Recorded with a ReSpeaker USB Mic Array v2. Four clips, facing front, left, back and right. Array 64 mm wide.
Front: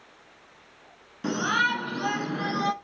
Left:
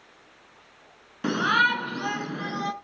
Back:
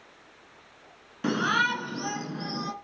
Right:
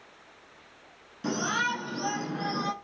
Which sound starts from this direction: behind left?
A shout, at 1.2 s.